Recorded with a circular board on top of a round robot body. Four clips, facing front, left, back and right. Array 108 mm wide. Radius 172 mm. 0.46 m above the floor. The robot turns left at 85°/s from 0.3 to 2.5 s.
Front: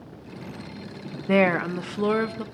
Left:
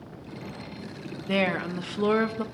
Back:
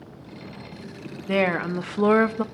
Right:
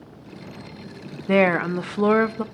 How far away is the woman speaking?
About 0.9 m.